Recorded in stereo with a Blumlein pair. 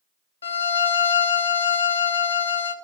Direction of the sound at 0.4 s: 70° left.